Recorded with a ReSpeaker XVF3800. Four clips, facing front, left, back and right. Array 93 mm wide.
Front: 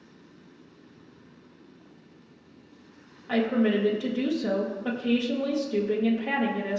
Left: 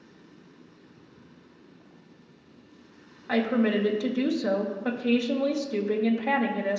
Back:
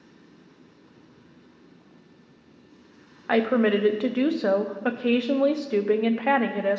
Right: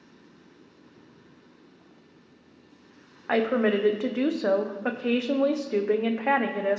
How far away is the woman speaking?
About 0.8 m.